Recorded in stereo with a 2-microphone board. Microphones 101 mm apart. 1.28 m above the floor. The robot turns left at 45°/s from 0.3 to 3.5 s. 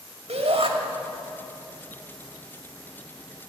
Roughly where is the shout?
Right.